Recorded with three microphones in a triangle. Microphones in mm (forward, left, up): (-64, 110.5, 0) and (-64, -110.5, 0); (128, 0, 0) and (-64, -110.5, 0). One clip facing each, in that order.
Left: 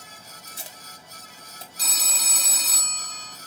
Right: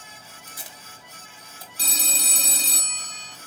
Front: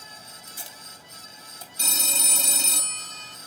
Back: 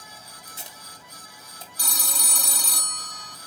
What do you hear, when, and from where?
0.5 s tape being pulled: 150° left, 1.9 m
1.8 s a phone ringing: 35° right, 0.6 m